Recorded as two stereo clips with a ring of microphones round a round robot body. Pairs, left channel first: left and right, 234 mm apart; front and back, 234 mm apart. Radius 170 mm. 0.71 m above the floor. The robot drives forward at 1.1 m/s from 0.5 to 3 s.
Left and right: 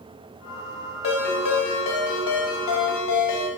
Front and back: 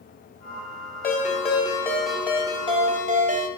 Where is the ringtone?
55° left, 2 m; by 3.5 s 120° left, 2 m.